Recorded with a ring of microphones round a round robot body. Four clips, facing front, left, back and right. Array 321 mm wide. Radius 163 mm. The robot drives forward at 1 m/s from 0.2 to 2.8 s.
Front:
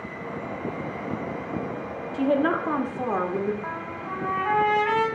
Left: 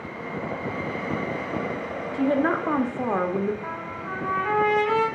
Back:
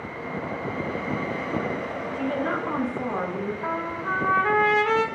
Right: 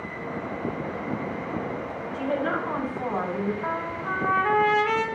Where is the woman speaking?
45° left, 1.6 m; by 3.5 s 70° left, 1.3 m.